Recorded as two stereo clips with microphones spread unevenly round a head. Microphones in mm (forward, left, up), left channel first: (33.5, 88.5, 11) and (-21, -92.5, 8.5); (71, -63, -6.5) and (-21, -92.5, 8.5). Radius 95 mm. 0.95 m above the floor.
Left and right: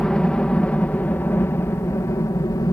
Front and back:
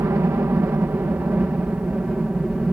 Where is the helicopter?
155° left; by 2.7 s 115° left.